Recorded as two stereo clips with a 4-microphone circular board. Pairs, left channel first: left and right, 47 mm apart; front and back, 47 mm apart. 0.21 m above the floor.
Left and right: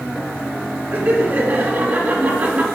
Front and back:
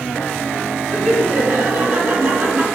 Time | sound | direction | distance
0.9 | laughter | 125° right | 2.5 m